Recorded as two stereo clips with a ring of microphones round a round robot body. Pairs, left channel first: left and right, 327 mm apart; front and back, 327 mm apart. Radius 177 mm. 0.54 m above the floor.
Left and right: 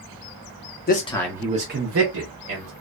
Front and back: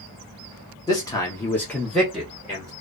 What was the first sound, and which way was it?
A man speaking, 65° left.